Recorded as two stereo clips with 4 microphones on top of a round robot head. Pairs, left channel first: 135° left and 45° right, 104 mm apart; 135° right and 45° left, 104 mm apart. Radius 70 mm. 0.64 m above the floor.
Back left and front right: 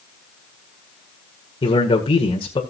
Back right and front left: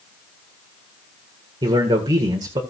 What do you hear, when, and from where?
1.6 s a man speaking: 95° left, 1.9 m